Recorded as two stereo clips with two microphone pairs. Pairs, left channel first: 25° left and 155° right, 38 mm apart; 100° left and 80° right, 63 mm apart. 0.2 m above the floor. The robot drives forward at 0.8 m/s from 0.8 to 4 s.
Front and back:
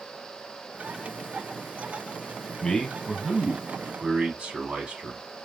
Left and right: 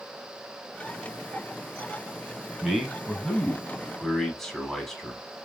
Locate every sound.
2.6 s a man speaking: 5° left, 1.0 m; by 5.2 s 175° left, 1.1 m